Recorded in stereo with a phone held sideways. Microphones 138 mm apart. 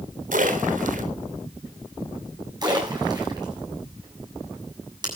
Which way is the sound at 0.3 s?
70° right (ahead or behind).